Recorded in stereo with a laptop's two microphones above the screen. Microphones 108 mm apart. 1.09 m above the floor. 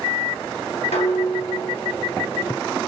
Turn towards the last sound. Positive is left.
turn(degrees=75)  # may be behind; listen again after turning